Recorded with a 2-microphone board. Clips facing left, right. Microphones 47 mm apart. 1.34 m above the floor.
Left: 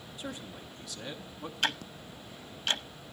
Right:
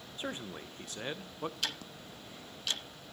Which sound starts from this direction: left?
Ticking, at 1.6 s.